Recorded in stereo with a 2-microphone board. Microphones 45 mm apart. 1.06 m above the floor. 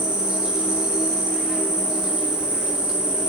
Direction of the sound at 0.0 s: 15° right (ahead or behind).